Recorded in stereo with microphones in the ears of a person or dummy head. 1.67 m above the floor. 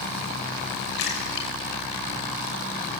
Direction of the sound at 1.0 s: 70° left (ahead or behind).